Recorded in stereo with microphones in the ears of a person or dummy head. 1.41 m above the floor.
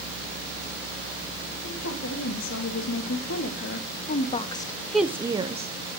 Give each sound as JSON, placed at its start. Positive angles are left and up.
{"t": 1.6, "sound": "a woman speaking", "side_deg": 70, "distance_m": 2.5}